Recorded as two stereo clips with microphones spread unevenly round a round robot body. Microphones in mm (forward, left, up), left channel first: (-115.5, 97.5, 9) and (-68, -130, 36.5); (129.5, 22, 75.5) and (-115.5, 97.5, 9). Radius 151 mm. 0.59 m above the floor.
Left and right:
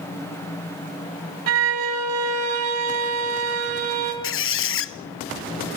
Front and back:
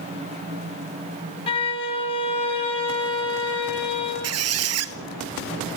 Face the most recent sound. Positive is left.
turn(degrees=130)